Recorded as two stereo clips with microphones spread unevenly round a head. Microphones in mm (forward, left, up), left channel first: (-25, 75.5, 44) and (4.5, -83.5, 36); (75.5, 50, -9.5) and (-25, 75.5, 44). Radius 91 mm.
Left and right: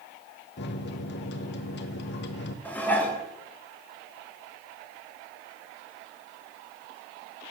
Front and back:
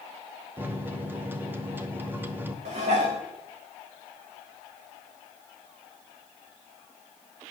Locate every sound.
0.6 s a microwave: 85° left, 1.0 m
2.6 s dishes clattering: straight behind, 1.5 m